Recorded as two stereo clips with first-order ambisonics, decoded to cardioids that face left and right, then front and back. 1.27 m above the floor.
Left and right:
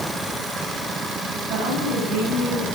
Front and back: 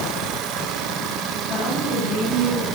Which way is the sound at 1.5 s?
45° right.